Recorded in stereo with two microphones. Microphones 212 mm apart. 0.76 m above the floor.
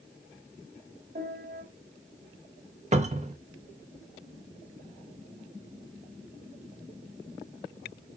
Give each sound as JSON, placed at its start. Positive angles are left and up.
{"t": 1.1, "sound": "a piano", "side_deg": -45, "distance_m": 5.0}
{"t": 2.9, "sound": "a cupboard door", "side_deg": -35, "distance_m": 1.0}